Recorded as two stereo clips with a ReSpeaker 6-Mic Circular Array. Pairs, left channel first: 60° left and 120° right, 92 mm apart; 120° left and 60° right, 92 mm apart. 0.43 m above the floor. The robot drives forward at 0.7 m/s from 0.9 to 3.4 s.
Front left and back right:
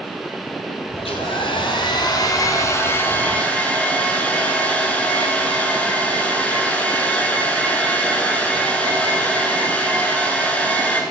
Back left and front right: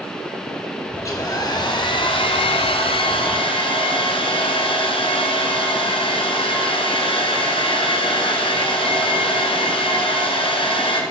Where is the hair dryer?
65° left, 1.3 m; by 11.0 s 135° left, 1.7 m.